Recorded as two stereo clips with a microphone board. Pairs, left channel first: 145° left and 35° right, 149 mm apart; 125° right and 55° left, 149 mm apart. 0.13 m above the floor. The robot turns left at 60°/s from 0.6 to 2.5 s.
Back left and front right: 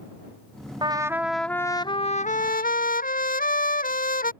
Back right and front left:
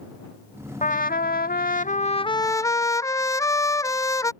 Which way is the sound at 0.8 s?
90° right.